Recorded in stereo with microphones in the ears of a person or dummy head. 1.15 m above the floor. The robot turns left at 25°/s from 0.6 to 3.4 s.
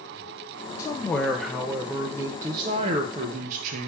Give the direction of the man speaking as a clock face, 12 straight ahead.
11 o'clock.